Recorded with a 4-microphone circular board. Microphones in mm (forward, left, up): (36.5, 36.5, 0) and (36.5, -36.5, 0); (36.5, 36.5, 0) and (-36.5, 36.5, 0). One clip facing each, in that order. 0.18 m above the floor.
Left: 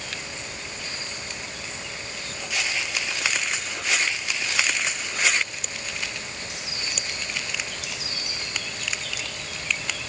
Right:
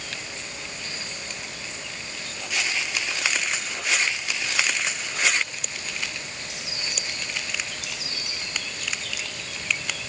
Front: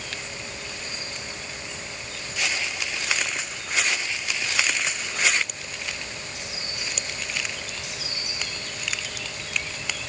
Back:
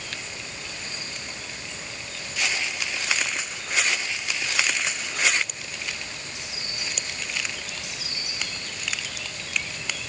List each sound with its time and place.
Only background noise.